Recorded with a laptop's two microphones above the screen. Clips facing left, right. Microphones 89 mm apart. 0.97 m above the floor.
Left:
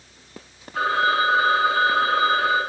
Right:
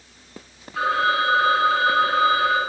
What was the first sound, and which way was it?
A phone ringing, 40° left (ahead or behind).